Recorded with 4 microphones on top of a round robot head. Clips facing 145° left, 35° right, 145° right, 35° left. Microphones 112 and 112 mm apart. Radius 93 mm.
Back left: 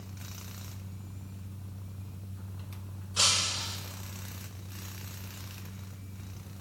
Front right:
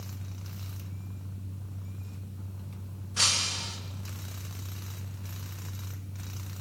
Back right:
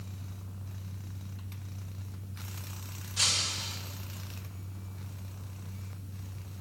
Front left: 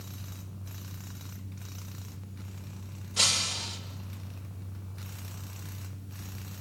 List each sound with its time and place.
3.2 s breaking glass: 70° left, 3 m